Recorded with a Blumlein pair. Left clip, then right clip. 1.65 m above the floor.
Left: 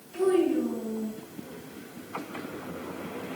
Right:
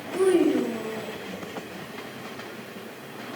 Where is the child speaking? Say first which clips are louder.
Right 3 dB; 50° right, 1.9 m.